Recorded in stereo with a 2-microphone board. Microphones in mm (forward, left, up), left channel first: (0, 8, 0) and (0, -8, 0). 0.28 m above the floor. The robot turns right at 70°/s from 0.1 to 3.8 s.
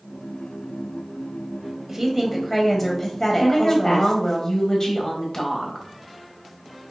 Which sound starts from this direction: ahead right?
A woman speaking, at 1.9 s.